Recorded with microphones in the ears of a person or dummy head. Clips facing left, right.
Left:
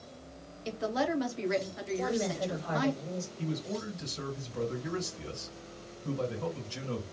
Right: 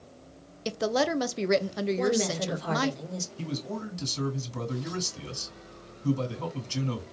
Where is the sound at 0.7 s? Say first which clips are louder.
Right 5 dB; 60° right (ahead or behind), 0.9 m.